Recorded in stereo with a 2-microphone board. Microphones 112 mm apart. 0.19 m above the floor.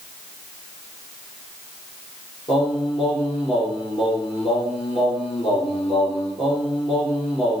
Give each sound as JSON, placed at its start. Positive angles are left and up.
{"t": 2.5, "sound": "singing", "side_deg": 60, "distance_m": 6.5}